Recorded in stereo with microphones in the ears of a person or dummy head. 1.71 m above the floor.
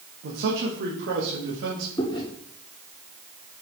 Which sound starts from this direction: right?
A man speaking, at 0.2 s.